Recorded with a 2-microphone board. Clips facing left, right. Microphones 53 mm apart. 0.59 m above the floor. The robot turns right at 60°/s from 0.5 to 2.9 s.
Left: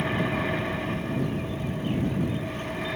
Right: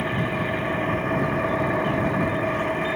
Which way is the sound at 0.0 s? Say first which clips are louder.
Right 2 dB; 170° right.